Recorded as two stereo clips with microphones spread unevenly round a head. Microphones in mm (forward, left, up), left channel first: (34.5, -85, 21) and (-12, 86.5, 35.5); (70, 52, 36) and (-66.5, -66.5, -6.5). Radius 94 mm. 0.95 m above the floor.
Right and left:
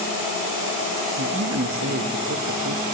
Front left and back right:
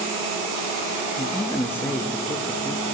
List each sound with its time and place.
1.2 s a man speaking: 120° left, 0.8 m